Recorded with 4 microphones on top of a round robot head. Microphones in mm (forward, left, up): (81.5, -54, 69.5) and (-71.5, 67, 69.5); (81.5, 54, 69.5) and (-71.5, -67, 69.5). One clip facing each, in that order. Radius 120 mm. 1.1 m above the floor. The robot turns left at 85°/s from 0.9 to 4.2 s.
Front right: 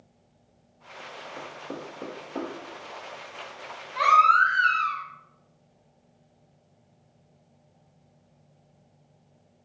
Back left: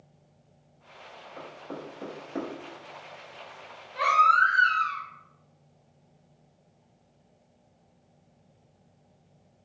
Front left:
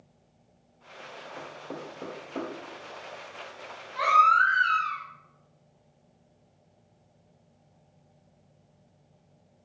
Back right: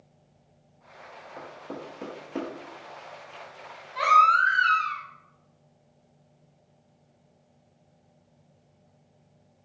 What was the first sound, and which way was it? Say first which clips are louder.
Knocking: front right 1 dB, back right 1 dB; 80° right.